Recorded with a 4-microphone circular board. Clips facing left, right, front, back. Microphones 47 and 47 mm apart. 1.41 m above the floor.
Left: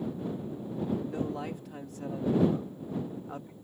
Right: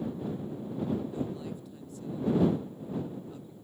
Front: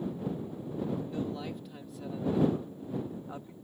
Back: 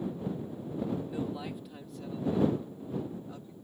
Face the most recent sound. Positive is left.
turn(degrees=55)